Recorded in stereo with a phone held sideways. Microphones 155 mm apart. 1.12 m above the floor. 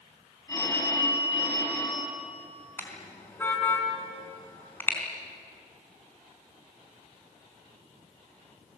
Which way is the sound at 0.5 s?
20° left (ahead or behind).